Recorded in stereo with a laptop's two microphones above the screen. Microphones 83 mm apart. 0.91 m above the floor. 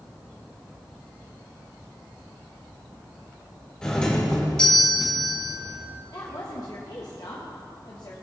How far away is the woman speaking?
About 0.8 m.